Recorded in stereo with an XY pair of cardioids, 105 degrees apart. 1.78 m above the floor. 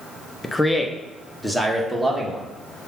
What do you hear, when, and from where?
0.4 s a man speaking: 15° left, 1.0 m; by 2.5 s 5° right, 2.5 m